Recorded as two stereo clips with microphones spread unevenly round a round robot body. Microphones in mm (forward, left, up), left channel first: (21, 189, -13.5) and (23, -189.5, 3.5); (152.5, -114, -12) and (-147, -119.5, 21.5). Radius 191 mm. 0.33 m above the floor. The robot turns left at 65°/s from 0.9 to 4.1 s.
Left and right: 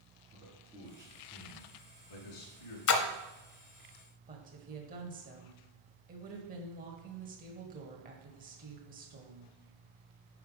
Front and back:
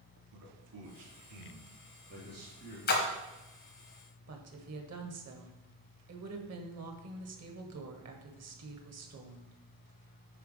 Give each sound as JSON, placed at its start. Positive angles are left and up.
{"t": 0.3, "sound": "a man speaking", "azimuth_deg": -165, "distance_m": 3.0}
{"t": 2.9, "sound": "a splash", "azimuth_deg": 55, "distance_m": 0.9}
{"t": 4.3, "sound": "a woman speaking", "azimuth_deg": -155, "distance_m": 1.6}